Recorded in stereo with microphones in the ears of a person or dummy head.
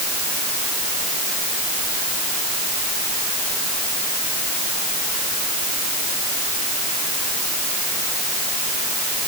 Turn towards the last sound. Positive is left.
No sound to turn to.